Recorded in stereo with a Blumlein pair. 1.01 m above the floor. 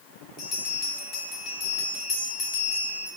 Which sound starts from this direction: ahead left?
A bell, at 0.4 s.